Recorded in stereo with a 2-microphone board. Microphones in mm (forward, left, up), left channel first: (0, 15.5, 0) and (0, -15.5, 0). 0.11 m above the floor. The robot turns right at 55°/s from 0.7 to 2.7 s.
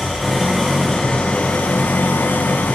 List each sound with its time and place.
0.0 s an engine running: 5° left, 4.5 m; by 2.8 s 115° left, 4.5 m